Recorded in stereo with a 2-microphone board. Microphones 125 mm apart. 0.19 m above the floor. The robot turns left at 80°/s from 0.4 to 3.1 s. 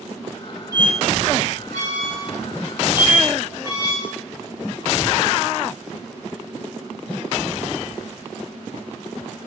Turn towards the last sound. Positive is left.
turn(degrees=30)  # may be behind; listen again after turning